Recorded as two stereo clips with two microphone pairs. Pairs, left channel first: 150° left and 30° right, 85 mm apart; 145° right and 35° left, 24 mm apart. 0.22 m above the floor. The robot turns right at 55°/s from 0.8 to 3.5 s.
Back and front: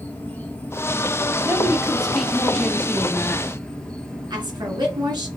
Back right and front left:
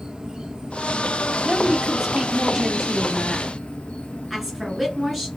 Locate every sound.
0.0 s an insect: 80° left, 1.3 m; by 5.4 s 130° right, 1.3 m
1.4 s a woman speaking: 15° left, 1.1 m; by 3.5 s 125° left, 1.1 m
4.3 s a woman speaking: 50° right, 2.5 m